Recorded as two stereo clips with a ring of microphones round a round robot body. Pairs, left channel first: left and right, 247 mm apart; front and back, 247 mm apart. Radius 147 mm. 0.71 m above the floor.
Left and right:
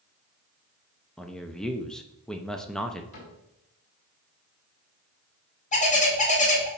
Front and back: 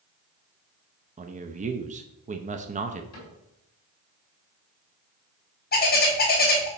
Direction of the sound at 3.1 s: 40° left.